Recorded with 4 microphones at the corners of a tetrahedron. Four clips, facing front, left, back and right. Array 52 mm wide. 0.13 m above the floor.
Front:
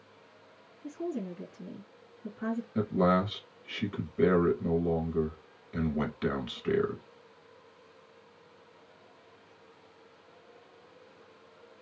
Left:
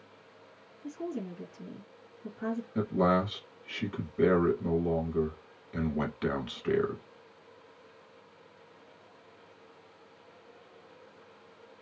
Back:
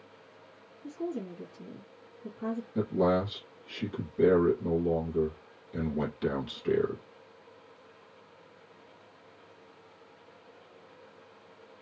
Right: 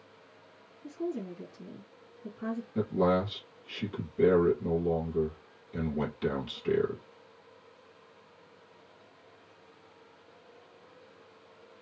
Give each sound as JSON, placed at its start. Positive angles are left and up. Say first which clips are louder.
{"t": 0.8, "sound": "a woman speaking", "louder": "right 1 dB, even", "azimuth_deg": 40, "distance_m": 1.6}
{"t": 2.8, "sound": "a man speaking", "louder": "even, even", "azimuth_deg": 55, "distance_m": 1.3}